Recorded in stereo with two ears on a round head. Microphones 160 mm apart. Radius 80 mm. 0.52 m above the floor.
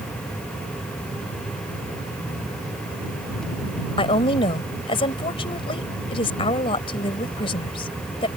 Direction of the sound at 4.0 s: 30° left (ahead or behind).